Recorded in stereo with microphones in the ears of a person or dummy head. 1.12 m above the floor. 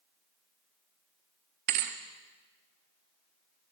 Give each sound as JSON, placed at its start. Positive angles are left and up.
{"t": 1.7, "sound": "a thud", "side_deg": -45, "distance_m": 0.8}